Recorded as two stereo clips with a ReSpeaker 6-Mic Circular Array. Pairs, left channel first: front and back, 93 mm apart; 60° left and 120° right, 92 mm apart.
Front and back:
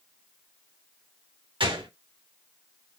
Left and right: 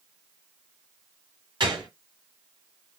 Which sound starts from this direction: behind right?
A gunshot, at 1.6 s.